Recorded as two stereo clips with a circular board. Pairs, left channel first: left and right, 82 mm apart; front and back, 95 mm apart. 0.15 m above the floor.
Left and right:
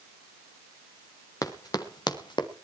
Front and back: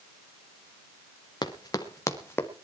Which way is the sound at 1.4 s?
45° left.